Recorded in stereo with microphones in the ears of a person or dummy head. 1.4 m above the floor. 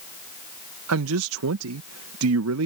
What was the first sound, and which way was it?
A man speaking, 90° right.